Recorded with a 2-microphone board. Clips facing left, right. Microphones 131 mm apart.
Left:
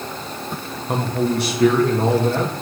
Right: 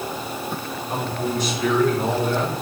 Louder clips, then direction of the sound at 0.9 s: Left 5 dB; 65° left (ahead or behind).